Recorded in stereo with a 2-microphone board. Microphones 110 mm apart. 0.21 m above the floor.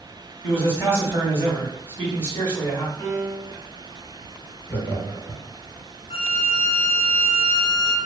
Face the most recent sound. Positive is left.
turn(degrees=70)  # may be behind; listen again after turning